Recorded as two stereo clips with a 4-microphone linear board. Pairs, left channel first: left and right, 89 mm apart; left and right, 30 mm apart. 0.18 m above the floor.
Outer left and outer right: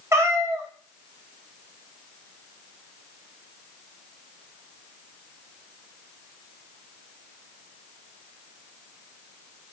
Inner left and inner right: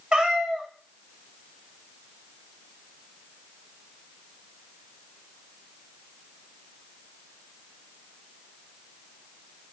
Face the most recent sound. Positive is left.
turn(degrees=-35)  # may be behind; listen again after turning